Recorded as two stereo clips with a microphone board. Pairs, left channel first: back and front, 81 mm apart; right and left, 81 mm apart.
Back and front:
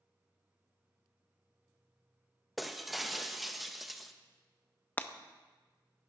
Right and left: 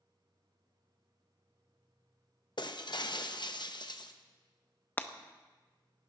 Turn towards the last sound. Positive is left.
turn(degrees=-135)